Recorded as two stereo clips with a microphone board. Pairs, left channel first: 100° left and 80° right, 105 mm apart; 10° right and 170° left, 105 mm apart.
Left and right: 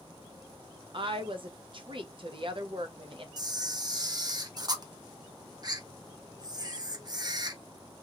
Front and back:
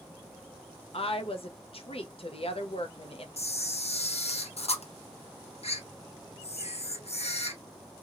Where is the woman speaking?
40° right, 0.7 m.